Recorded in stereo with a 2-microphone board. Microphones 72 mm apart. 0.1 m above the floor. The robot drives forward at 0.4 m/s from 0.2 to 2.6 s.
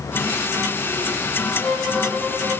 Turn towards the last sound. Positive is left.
turn(degrees=15)  # may be behind; listen again after turning